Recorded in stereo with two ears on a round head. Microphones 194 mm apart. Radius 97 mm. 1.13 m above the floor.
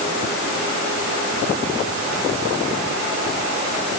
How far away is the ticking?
I don't hear ticking.